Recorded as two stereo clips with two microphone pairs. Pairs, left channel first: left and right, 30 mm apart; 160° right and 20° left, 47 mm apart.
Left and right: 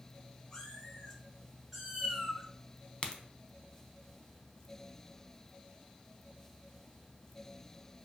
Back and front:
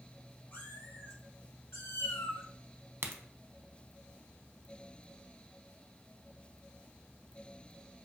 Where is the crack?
35° left, 0.5 m.